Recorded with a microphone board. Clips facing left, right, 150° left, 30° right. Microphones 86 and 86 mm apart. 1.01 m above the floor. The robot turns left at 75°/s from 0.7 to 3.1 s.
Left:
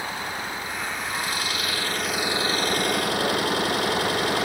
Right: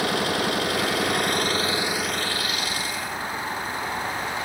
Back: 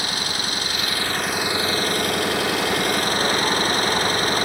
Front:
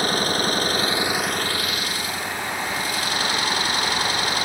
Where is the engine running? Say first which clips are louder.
Right 7 dB, front 6 dB; 75° right; by 4.5 s 105° left.